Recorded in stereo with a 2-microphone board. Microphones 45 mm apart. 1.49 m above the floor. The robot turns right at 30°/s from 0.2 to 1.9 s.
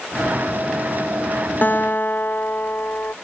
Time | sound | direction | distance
1.6 | a guitar | 40° left (ahead or behind) | ?